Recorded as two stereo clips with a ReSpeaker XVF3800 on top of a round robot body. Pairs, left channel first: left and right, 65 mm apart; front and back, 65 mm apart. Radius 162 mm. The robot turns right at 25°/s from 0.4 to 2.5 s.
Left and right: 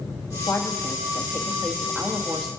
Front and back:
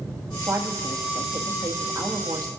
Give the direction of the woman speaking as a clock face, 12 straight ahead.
7 o'clock.